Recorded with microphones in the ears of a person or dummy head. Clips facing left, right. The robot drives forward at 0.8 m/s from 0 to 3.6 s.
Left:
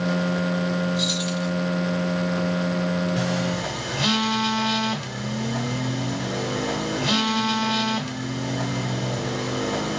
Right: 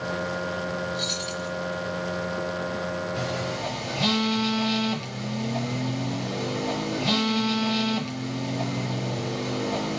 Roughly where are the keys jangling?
Centre.